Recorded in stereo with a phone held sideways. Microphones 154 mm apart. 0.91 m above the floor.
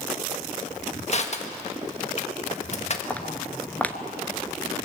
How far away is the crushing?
About 1.5 m.